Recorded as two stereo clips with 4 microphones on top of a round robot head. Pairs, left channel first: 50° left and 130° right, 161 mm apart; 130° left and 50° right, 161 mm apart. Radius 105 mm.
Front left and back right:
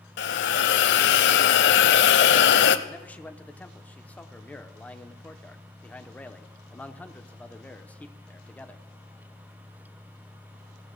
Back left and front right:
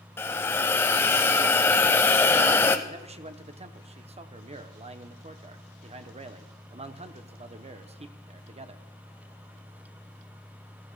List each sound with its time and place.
0.2 s a hiss: 55° left, 0.6 m
2.9 s a man speaking: 25° right, 0.9 m